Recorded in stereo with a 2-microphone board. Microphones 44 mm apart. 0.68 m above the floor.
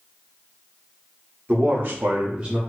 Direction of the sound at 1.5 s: 40° right (ahead or behind).